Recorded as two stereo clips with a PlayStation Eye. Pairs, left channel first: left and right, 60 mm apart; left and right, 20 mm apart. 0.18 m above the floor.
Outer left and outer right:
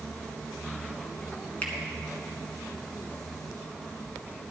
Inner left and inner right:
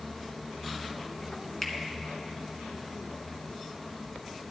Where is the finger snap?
25° left (ahead or behind), 1.9 m.